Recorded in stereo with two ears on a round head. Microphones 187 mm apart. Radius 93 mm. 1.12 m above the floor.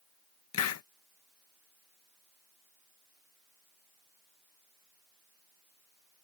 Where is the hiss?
80° left.